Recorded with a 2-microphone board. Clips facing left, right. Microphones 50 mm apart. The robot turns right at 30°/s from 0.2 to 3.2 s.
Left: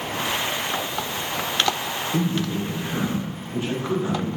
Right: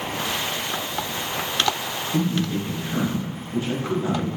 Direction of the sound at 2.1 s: 20° left (ahead or behind).